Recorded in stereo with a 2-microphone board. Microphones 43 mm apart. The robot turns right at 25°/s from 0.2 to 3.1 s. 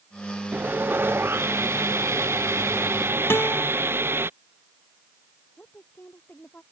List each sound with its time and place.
0.5 s sawing: 130° right; by 4.3 s 65° right
3.3 s a guitar: 65° left (ahead or behind)
5.6 s a woman speaking: 45° left (ahead or behind)